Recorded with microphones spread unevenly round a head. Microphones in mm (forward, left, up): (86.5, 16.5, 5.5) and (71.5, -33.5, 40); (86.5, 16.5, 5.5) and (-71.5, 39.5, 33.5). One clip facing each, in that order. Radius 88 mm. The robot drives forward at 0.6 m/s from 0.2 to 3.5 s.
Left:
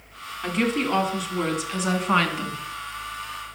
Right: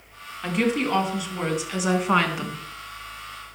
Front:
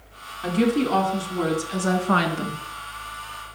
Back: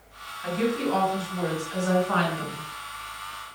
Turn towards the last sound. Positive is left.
turn(degrees=-25)